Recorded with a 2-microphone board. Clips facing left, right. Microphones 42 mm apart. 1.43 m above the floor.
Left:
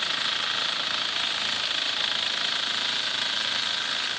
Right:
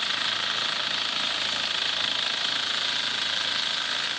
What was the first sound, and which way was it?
Only background noise.